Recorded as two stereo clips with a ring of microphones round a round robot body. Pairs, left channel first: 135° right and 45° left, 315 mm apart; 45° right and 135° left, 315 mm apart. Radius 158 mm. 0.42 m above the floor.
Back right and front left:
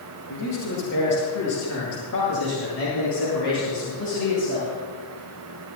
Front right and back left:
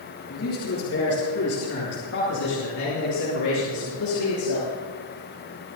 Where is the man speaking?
95° right, 8.5 m; by 4.7 s 80° right, 9.5 m.